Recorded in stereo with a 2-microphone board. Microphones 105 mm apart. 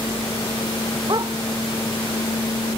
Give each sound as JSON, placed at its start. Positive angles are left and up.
{"t": 1.1, "sound": "a dog barking", "side_deg": -45}